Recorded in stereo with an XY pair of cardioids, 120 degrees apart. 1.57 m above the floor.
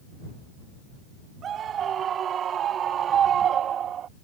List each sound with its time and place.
1.4 s a scream: 50° right; by 4.1 s 55° right